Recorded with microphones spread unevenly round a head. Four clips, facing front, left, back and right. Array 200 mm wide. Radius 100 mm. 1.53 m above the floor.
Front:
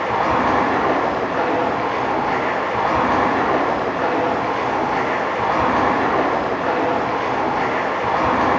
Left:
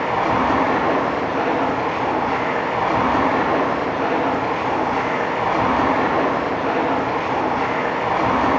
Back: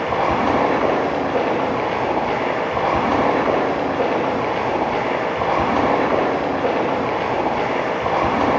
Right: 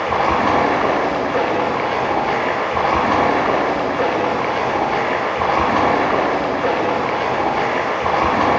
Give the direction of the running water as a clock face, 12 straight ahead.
5 o'clock.